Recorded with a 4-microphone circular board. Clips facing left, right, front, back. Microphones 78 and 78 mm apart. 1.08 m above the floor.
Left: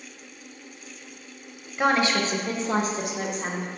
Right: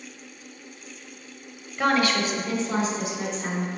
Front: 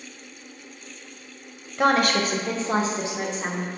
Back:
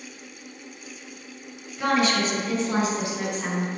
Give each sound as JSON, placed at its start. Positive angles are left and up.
{"t": 1.8, "sound": "a woman speaking", "azimuth_deg": 15, "distance_m": 0.9}